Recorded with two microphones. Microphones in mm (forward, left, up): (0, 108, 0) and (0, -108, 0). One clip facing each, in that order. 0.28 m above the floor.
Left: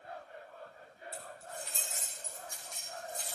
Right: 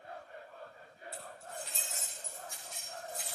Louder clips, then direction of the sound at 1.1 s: Even; centre (ahead or behind).